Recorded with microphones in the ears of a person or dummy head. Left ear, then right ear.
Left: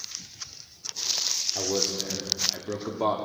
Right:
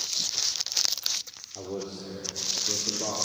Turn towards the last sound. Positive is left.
turn(degrees=40)  # may be behind; listen again after turning